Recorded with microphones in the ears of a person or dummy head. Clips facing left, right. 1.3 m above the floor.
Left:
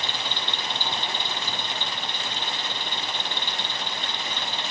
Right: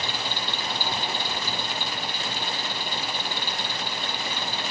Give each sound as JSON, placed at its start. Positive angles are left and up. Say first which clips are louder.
{"t": 0.0, "sound": "an engine running", "louder": "right 1 dB", "side_deg": -5}